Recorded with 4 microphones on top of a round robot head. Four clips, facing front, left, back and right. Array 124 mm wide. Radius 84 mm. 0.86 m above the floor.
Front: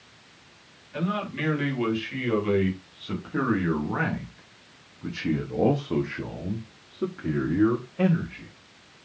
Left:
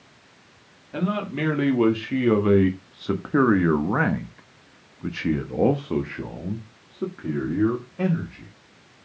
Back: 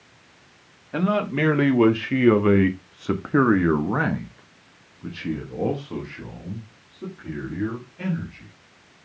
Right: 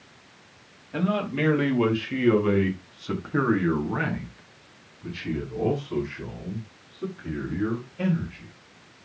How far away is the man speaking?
About 2.5 m.